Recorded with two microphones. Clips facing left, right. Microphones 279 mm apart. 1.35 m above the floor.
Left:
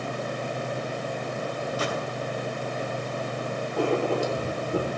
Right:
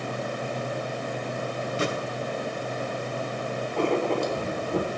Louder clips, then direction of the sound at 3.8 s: Even; 5° left (ahead or behind).